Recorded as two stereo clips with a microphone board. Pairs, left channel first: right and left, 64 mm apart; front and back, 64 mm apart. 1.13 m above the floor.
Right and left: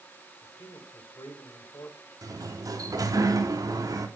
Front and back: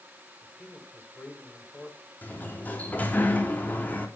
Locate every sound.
0.4 s a man speaking: 70° right, 6 m
2.2 s a sliding door: 65° left, 3 m